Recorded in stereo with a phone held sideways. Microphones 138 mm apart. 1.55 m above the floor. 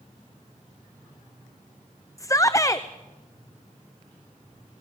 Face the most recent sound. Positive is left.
turn(degrees=25)  # may be behind; listen again after turning